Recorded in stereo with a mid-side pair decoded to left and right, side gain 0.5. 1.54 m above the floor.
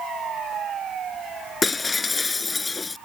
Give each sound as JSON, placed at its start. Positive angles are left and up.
{"t": 1.6, "sound": "breaking glass", "azimuth_deg": 20}